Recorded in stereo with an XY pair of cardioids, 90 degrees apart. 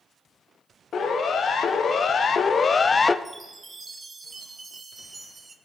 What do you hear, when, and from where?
0.9 s a siren: 60° left, 2 m; by 3.1 s 30° left, 0.7 m
3.2 s a chime: 35° right, 1.5 m